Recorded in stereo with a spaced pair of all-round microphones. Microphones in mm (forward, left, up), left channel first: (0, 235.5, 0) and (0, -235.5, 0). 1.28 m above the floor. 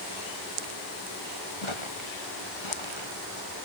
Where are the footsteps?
85° left.